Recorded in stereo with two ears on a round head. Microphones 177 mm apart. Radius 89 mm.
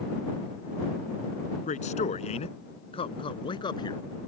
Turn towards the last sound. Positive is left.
turn(degrees=25)  # may be behind; listen again after turning